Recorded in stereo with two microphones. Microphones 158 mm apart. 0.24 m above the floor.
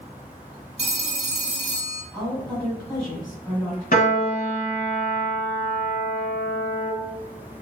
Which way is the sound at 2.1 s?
15° left (ahead or behind).